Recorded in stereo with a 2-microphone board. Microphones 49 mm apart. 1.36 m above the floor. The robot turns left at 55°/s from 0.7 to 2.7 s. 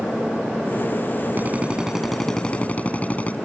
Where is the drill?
140° right; by 3.4 s 145° left.